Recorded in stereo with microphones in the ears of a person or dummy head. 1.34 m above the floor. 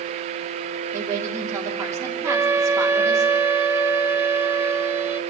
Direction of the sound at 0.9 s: 15° right (ahead or behind).